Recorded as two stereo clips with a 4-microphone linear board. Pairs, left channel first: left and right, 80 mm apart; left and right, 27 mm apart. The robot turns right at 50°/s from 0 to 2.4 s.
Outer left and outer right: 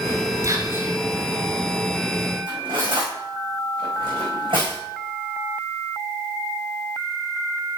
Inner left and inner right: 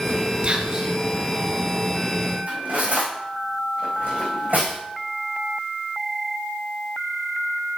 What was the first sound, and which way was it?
Whispering, 40° right (ahead or behind).